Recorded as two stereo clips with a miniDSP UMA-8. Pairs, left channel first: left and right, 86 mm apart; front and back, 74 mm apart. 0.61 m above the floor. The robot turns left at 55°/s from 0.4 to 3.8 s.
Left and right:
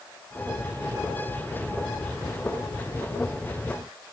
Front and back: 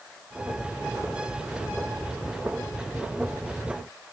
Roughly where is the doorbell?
No doorbell in this recording.